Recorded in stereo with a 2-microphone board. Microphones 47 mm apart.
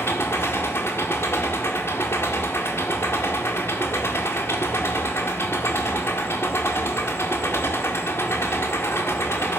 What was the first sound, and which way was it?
An engine running, 65° left (ahead or behind).